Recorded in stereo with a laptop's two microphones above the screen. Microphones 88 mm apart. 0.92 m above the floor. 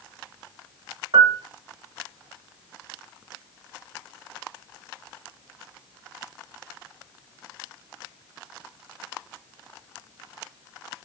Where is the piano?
60° right (ahead or behind), 1.0 m.